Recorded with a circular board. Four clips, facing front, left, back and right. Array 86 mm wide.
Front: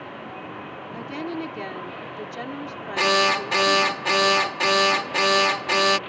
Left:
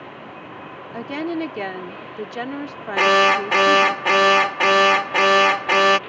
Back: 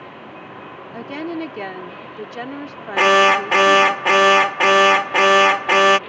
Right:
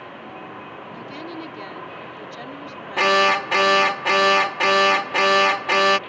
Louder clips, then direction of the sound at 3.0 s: Left 2 dB, back 8 dB; 165° left.